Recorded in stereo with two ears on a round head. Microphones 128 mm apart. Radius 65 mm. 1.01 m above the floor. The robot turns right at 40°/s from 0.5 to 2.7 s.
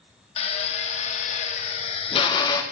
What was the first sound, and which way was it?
A drill, 60° left.